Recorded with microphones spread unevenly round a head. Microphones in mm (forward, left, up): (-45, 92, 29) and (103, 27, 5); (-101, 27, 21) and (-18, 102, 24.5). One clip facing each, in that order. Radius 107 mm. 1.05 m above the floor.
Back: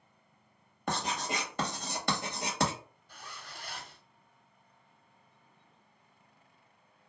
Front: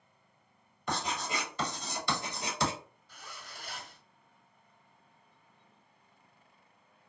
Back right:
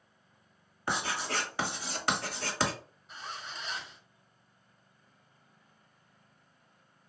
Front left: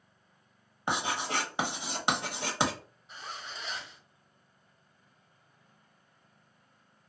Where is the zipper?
130° left, 1.6 m.